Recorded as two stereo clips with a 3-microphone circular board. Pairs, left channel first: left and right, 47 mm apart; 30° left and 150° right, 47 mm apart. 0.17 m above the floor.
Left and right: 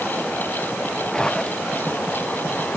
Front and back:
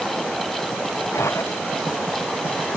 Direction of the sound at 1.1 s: 15° left.